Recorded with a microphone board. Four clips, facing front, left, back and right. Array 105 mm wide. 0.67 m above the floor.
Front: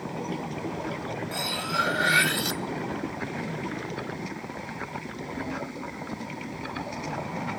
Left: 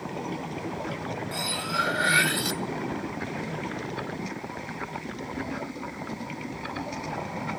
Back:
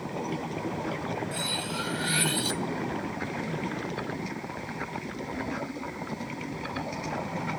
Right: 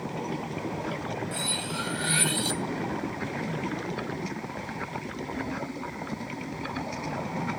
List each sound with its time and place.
1.3 s cutlery clinking: 40° left, 0.7 m